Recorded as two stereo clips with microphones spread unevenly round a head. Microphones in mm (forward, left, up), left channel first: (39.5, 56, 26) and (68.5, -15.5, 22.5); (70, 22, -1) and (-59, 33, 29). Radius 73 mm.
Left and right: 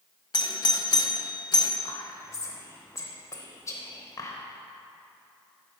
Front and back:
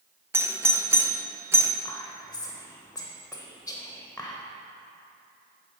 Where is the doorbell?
100° left, 0.7 m.